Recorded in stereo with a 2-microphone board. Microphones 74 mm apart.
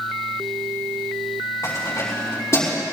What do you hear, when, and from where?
1.6 s keys jangling: 45° left (ahead or behind), 5.5 m; by 2.8 s 40° left (ahead or behind), 6 m